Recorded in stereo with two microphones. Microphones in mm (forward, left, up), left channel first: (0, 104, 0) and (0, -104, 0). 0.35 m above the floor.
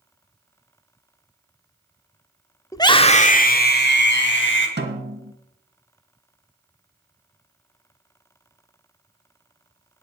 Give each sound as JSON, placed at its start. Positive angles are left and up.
{"t": 2.7, "sound": "a scream", "side_deg": 15, "distance_m": 1.0}
{"t": 4.8, "sound": "a snare drum", "side_deg": -55, "distance_m": 1.7}